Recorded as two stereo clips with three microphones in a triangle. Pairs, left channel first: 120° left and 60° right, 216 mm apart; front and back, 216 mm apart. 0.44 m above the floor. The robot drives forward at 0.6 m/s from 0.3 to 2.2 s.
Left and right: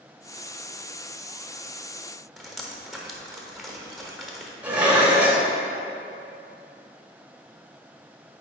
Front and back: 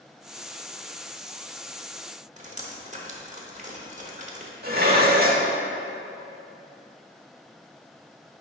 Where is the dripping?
150° right, 0.9 m.